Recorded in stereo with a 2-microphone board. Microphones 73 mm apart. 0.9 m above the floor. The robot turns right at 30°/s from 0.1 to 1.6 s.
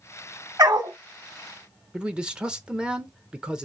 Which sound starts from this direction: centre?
A man speaking, at 1.9 s.